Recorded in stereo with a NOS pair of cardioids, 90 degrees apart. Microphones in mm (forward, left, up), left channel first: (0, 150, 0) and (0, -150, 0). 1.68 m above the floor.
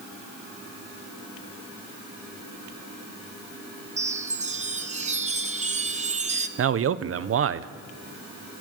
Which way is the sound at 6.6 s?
45° right.